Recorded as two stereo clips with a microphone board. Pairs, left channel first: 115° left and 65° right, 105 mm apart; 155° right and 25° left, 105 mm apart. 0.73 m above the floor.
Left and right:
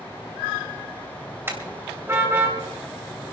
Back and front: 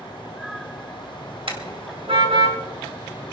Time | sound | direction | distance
1.5 | a car horn | straight ahead | 2.5 m